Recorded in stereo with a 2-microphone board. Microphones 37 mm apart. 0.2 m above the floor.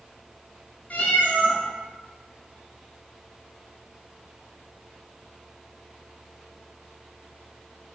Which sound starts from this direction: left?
A cat meowing, at 0.9 s.